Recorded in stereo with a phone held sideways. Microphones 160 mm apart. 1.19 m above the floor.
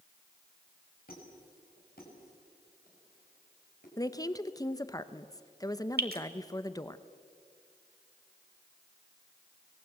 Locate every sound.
1.1 s a squeak: 70° left (ahead or behind), 6 m
4.0 s a woman speaking: 25° left (ahead or behind), 0.8 m
6.0 s dripping: 80° right, 1.6 m